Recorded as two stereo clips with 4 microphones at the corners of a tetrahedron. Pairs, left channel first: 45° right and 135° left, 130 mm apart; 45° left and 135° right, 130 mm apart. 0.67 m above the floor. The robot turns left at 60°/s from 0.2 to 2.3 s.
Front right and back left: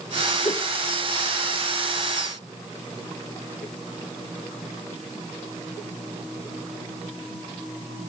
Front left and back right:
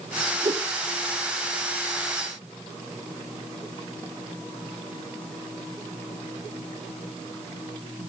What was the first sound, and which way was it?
A whoosh, 85° right.